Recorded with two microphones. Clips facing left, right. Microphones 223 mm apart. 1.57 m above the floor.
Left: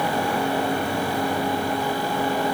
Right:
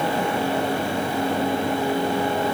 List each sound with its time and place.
Only background noise.